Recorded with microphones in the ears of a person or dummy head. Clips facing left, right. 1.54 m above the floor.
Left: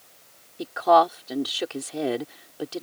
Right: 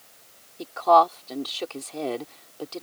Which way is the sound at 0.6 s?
10° left (ahead or behind).